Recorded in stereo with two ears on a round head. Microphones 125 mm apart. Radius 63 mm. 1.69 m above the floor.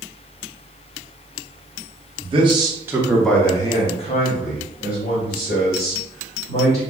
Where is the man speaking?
40° right (ahead or behind), 0.9 m; by 6.8 s 80° left, 2 m.